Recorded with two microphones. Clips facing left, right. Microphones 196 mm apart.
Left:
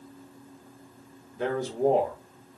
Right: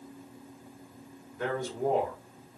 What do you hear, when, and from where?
1.4 s a man speaking: 25° left (ahead or behind), 2 m